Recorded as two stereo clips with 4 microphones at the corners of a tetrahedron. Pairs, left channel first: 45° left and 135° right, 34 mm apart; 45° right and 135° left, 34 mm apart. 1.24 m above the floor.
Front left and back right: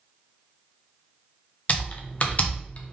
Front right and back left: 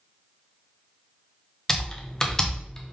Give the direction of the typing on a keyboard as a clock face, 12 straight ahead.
11 o'clock.